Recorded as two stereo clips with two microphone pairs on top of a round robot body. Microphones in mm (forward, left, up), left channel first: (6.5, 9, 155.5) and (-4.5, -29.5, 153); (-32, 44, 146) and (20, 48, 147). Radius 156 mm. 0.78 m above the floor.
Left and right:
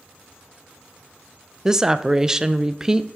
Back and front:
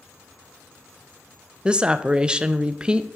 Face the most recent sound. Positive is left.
turn(degrees=-50)